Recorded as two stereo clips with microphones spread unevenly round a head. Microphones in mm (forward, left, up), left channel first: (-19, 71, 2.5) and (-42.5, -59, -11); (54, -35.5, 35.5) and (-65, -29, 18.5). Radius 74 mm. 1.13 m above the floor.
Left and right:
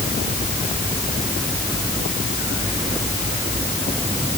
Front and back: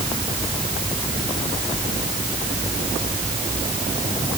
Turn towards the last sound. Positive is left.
No sound to turn to.